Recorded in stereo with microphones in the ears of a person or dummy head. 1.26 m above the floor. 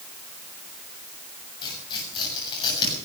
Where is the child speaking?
No child speaking in this recording.